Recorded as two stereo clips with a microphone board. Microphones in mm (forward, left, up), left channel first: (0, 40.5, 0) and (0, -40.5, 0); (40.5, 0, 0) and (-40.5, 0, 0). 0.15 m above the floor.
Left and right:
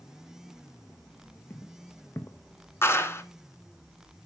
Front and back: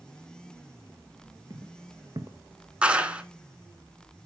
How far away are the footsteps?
About 1.5 m.